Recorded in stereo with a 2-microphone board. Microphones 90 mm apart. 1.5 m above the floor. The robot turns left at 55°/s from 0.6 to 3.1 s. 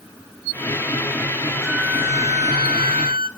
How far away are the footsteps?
No footsteps in this recording.